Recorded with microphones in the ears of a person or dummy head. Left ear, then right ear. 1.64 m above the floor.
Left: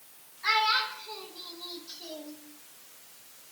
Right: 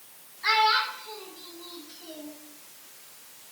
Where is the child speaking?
5° right (ahead or behind), 1.6 m; by 2.4 s 45° left (ahead or behind), 1.5 m.